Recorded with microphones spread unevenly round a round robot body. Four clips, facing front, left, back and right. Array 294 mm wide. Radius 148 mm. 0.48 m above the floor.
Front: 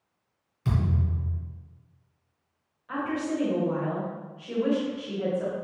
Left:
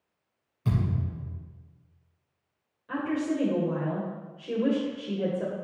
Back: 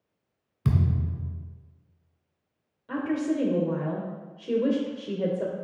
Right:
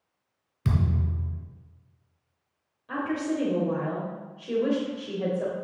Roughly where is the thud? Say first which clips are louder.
Right 1 dB, back 1 dB; behind right.